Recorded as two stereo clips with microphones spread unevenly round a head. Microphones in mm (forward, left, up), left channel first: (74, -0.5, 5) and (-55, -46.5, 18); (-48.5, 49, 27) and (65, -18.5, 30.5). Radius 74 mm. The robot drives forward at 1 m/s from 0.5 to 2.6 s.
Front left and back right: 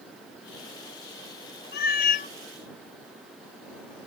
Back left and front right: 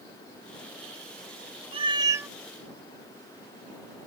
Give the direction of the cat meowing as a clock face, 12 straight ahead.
11 o'clock.